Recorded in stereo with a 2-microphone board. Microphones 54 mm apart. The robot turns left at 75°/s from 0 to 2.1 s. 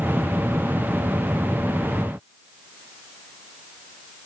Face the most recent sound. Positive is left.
No sound to turn to.